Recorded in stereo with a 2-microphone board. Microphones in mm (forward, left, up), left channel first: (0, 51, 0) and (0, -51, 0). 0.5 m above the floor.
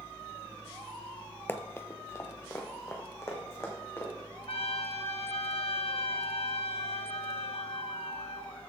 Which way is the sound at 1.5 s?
20° left (ahead or behind).